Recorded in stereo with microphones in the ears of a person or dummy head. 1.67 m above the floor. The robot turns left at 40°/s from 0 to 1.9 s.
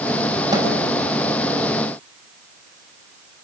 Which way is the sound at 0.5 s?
30° right (ahead or behind).